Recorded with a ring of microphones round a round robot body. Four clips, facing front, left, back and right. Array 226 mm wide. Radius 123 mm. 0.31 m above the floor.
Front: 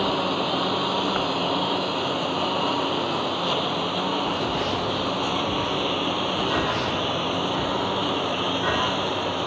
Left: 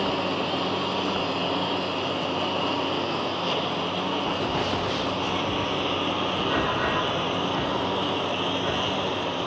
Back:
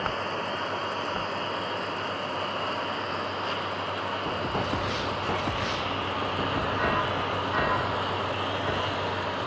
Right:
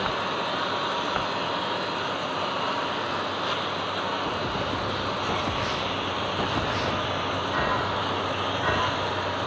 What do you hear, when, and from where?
0.0 s a lawn mower: 35° left; by 9.5 s 40° left